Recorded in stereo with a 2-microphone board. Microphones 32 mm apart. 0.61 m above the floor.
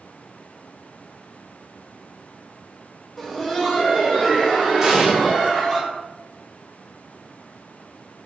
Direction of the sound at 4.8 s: 15° right (ahead or behind).